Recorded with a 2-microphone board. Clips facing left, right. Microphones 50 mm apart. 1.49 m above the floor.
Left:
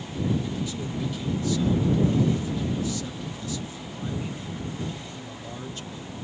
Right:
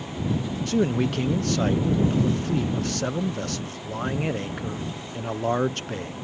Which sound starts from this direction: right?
A man speaking, at 0.7 s.